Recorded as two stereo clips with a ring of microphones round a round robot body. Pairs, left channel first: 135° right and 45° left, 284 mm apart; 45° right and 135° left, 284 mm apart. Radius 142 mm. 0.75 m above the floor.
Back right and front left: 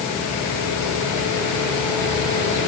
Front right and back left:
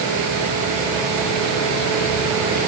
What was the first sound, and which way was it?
Only background noise.